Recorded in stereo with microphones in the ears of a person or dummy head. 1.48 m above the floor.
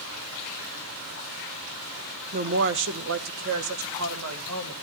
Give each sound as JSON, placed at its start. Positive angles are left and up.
{"t": 2.3, "sound": "a woman speaking", "side_deg": -50, "distance_m": 1.0}